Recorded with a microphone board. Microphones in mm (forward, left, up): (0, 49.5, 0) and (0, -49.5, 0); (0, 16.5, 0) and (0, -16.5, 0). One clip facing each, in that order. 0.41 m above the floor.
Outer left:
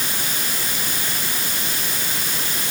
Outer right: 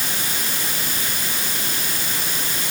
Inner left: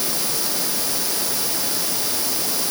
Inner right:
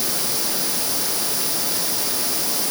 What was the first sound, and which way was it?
Only background noise.